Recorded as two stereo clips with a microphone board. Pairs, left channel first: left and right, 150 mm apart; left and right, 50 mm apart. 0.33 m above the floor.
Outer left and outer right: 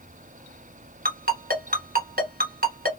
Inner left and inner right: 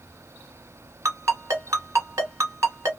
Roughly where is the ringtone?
Right.